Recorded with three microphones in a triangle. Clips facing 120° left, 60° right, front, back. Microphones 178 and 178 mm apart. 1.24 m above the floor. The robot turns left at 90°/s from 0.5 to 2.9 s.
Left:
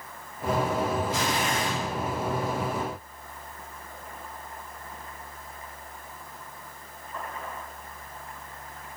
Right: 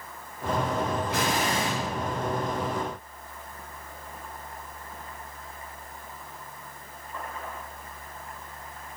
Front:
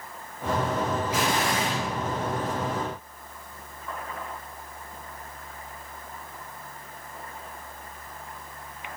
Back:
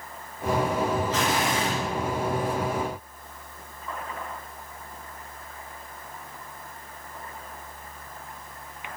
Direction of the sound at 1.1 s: 75° right.